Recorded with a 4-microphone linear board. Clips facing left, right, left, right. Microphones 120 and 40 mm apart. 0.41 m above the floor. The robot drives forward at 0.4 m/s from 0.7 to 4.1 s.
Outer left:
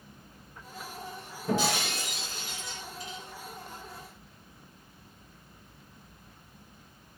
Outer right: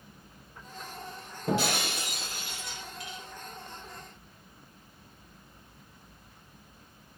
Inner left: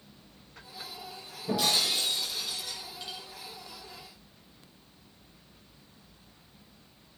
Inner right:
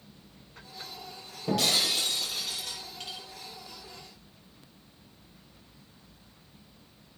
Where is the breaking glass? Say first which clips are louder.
Even, inner right 1 dB; 65° right (ahead or behind), 7.5 m; by 3.2 s 70° right (ahead or behind), 7.5 m.